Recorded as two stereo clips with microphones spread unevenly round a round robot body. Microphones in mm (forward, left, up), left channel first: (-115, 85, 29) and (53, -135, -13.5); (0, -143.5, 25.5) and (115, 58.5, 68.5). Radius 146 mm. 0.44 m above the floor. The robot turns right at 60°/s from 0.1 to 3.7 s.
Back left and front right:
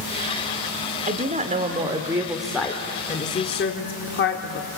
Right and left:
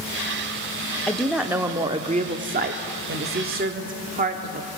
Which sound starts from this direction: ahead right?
A woman speaking, at 1.1 s.